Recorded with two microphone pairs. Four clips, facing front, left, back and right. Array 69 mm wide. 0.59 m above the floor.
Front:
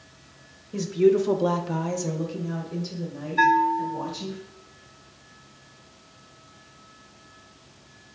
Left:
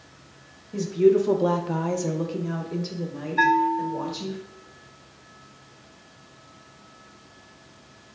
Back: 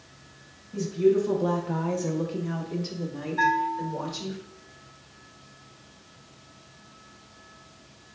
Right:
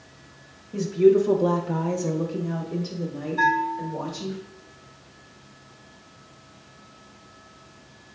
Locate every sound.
0.7 s a woman speaking: 5° right, 0.8 m; by 4.4 s 160° left, 1.9 m
3.4 s a bell: 60° left, 0.7 m